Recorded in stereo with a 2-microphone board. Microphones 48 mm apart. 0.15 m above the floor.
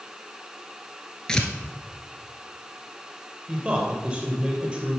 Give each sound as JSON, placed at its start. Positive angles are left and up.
{"t": 1.3, "sound": "tearing paper", "side_deg": 15, "distance_m": 1.0}
{"t": 3.5, "sound": "a man speaking", "side_deg": -30, "distance_m": 3.0}